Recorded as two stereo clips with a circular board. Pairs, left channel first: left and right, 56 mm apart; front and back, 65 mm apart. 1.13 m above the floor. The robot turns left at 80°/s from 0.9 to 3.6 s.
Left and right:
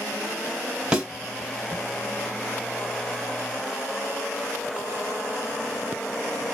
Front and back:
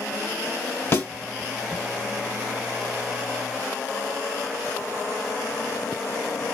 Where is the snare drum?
20° right, 1.1 m; by 1.1 s 30° right, 1.1 m.